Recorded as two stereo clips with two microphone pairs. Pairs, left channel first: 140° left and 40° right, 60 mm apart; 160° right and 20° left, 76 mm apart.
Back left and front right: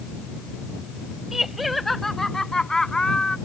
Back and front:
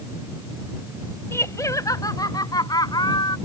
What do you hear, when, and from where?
1.3 s laughter: 120° right; by 3.4 s 145° right